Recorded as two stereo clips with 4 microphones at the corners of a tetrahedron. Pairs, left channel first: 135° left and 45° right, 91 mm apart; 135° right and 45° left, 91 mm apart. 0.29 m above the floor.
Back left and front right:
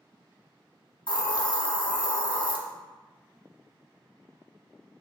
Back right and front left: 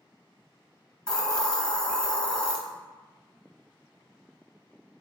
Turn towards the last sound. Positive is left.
turn(degrees=145)